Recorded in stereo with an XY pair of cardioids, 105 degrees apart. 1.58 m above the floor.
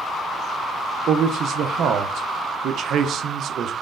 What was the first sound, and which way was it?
A man speaking, 65° right.